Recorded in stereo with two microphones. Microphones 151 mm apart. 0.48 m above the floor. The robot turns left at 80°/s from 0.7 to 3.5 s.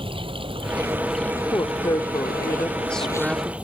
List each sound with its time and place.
0.0 s running water: 145° right; by 3.6 s 10° right
1.5 s a woman speaking: 20° left (ahead or behind); by 3.5 s 15° right (ahead or behind)